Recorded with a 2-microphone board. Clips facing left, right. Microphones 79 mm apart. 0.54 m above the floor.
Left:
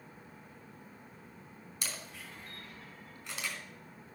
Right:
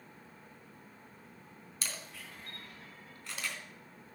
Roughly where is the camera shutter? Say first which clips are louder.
Even; centre.